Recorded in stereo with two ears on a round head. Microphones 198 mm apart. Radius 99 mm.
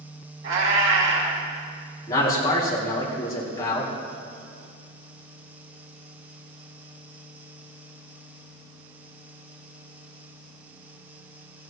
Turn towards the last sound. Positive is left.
turn(degrees=20)  # may be behind; listen again after turning